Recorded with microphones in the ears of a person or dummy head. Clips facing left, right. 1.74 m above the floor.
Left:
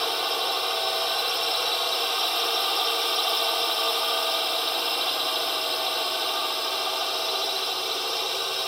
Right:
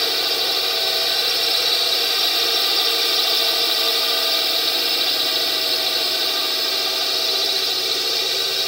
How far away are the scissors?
No scissors in this recording.